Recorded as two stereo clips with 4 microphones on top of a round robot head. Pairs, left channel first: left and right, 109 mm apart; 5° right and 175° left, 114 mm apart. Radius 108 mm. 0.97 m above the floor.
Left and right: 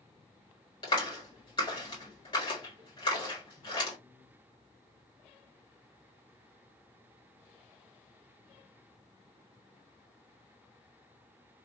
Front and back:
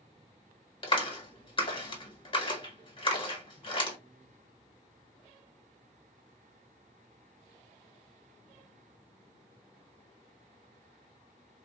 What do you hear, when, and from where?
0.8 s a clap: 35° left, 1.7 m